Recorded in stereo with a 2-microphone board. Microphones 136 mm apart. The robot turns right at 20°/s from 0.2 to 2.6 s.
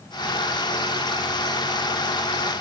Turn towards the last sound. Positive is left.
No sound to turn to.